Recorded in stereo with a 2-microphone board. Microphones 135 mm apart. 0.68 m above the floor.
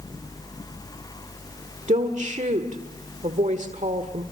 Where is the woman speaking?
60° right (ahead or behind), 1.6 m.